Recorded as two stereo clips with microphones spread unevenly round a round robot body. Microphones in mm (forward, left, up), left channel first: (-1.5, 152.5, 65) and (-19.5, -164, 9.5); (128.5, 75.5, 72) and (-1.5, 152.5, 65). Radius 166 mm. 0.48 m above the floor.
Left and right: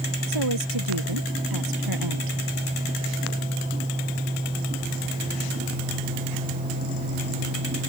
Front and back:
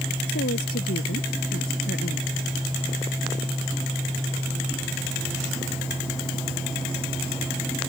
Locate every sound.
0.3 s a woman speaking: 70° right; by 2.4 s 75° right